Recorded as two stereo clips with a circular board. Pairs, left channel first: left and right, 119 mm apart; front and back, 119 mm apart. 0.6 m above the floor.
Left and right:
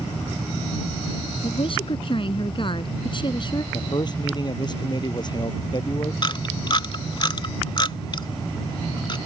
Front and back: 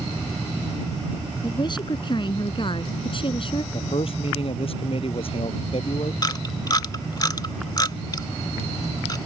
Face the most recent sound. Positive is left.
turn(degrees=50)